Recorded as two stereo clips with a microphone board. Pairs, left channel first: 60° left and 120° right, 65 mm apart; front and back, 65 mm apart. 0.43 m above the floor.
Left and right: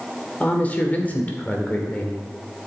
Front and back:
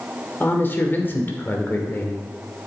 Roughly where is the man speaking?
Ahead.